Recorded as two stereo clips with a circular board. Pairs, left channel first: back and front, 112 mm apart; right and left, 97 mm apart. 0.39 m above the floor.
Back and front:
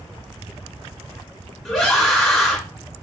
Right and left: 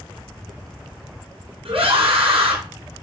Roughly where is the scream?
Left.